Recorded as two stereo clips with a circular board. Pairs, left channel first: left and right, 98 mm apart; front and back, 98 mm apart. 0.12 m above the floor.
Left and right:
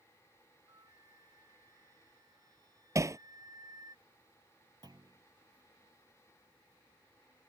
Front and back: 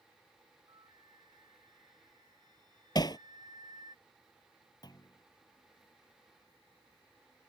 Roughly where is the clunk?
Ahead right.